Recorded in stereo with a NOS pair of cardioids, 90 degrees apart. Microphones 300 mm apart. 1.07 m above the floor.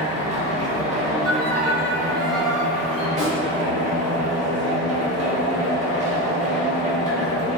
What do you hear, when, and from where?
0.0 s a machine running: 25° right, 0.9 m
1.2 s a violin: 55° right, 0.6 m
3.2 s a snare drum: 25° right, 1.3 m